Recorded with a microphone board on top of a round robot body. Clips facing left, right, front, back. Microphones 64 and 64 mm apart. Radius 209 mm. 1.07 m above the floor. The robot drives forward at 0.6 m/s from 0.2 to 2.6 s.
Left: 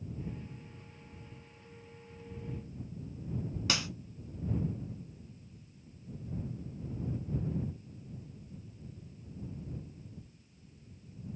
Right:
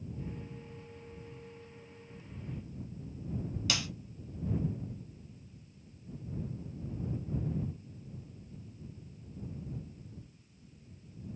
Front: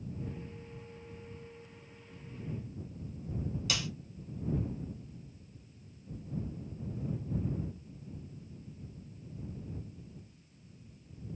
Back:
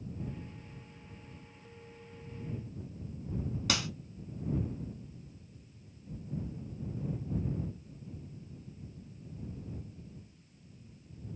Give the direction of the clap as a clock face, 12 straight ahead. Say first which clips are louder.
Left 2 dB, back 5 dB; 7 o'clock.